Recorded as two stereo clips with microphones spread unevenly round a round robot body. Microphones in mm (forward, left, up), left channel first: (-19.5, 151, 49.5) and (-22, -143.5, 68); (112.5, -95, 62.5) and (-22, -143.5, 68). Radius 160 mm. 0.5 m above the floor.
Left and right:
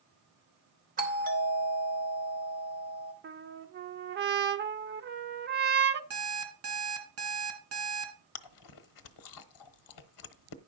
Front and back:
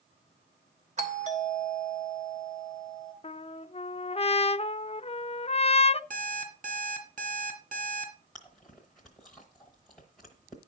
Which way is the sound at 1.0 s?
150° right.